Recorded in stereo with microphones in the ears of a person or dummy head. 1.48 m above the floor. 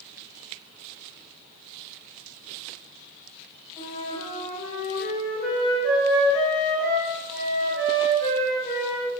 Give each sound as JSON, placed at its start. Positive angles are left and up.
{"t": 3.8, "sound": "a flute", "side_deg": 15, "distance_m": 1.1}